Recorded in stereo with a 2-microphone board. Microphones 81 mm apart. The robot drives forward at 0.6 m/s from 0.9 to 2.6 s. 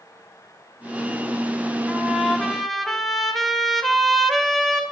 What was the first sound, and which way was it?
A trumpet, centre (ahead or behind).